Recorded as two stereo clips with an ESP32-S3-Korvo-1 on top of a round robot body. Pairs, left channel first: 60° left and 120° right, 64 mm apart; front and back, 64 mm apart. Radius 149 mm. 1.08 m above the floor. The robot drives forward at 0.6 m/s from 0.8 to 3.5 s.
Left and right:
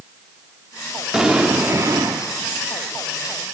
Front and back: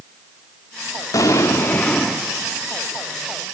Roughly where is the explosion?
Ahead right.